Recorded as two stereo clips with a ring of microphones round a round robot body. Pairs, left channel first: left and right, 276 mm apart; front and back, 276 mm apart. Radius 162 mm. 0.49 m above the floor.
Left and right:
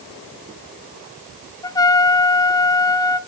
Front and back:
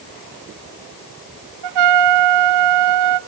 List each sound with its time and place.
1.6 s a trumpet: 170° left, 0.6 m